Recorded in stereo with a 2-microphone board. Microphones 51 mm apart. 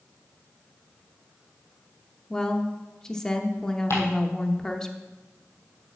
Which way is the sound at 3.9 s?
60° left (ahead or behind).